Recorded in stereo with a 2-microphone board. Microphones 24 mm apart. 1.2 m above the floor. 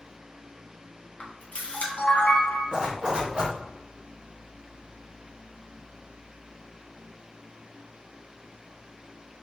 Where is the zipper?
35° right (ahead or behind), 0.8 m.